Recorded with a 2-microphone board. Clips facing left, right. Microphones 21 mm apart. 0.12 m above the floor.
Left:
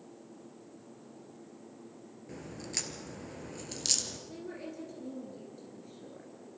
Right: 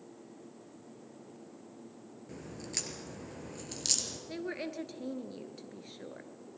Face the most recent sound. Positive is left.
turn(degrees=-50)  # may be behind; listen again after turning